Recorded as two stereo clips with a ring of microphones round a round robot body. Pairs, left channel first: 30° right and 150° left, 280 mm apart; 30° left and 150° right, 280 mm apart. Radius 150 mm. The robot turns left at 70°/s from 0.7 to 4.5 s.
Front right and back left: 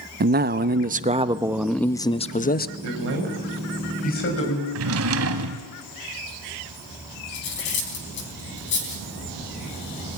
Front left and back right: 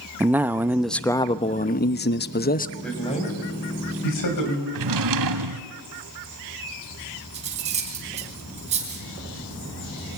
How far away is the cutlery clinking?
About 3.5 m.